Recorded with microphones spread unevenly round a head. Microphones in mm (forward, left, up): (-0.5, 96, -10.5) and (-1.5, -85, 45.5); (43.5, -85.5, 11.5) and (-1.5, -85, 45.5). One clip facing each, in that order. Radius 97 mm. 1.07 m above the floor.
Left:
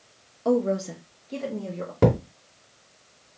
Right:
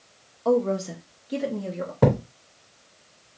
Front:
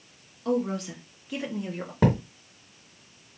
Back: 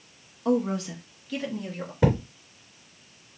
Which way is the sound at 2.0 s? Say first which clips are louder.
Even, even; 25° left.